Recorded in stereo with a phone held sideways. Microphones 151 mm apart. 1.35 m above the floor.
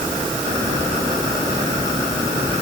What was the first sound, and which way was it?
Only background noise.